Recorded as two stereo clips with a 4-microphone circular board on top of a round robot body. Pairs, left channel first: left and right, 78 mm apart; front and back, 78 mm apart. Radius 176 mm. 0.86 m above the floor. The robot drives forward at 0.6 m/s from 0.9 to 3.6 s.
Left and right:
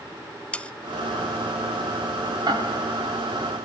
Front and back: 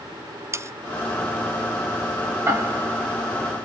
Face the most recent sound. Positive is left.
turn(degrees=-125)